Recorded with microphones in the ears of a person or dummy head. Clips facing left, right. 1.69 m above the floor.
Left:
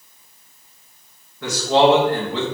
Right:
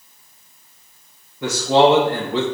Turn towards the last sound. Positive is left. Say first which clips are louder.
# right 1 dB
turn(degrees=-15)  # may be behind; listen again after turning